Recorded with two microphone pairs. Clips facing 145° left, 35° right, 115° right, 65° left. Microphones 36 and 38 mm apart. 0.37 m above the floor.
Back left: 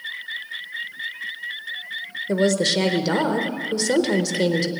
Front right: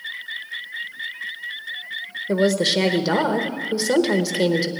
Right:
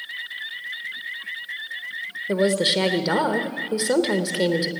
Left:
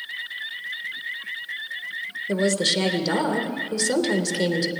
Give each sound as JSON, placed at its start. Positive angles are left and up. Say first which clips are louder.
{"t": 2.3, "sound": "a woman speaking", "louder": "front right 1 dB, right 2 dB", "azimuth_deg": -95, "distance_m": 0.8}